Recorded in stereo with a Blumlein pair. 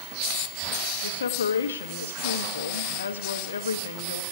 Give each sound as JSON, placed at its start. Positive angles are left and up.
{"t": 1.0, "sound": "a woman speaking", "azimuth_deg": 65, "distance_m": 1.2}